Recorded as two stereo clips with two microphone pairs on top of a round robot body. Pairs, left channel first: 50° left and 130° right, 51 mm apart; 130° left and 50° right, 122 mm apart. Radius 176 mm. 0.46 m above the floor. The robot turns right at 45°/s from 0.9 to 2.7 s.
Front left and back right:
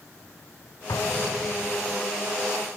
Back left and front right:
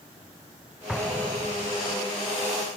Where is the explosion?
40° left; by 2.0 s 90° left.